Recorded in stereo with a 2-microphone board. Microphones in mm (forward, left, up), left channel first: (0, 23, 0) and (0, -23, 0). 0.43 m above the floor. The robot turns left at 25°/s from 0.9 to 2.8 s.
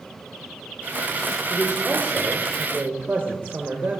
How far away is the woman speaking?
About 1.3 m.